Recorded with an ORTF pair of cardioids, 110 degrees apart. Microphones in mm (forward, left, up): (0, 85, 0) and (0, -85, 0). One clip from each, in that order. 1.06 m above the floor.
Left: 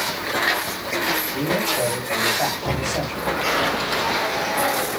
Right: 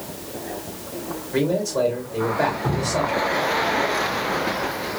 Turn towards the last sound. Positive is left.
turn(degrees=-55)